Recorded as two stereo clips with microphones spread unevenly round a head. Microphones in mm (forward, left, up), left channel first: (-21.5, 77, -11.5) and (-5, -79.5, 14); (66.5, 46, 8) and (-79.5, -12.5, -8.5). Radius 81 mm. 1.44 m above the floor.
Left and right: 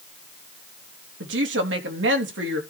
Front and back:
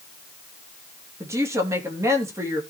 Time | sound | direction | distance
1.2 | a woman speaking | 85° right | 3 m